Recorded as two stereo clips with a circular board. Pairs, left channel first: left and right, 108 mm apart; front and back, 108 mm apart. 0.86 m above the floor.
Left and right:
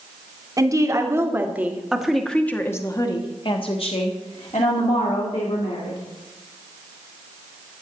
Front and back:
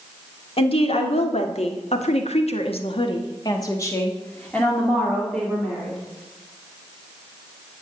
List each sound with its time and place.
0.6 s a woman speaking: 30° right, 2 m; by 6.0 s 90° left, 3 m